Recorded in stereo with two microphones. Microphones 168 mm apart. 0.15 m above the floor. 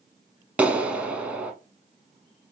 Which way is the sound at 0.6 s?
10° right (ahead or behind).